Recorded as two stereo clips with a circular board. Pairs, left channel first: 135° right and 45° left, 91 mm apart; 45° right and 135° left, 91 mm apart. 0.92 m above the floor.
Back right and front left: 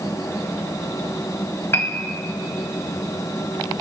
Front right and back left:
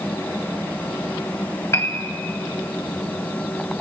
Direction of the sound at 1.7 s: 85° right.